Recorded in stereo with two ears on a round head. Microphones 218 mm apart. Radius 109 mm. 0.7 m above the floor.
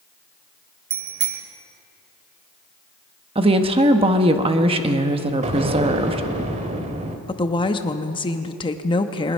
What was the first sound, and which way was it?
A bicycle bell, 40° right (ahead or behind).